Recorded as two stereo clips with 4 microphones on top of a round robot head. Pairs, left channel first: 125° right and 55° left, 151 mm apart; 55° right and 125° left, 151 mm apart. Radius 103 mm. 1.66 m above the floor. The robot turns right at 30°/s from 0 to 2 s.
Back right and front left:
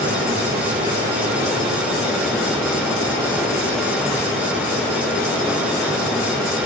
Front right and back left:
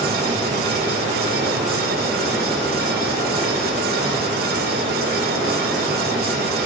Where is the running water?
90° left, 5.5 m; by 6.7 s 150° left, 5.5 m.